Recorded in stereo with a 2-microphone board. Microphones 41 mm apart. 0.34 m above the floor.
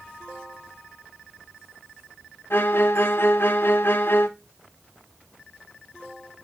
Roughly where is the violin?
Left.